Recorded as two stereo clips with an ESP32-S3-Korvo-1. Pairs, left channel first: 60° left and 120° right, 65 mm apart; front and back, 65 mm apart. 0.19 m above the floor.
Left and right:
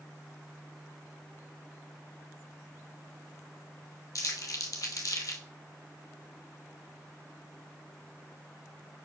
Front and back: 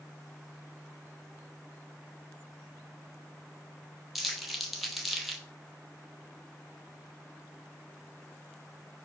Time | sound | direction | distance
4.2 | crumpling | 90° left | 0.8 m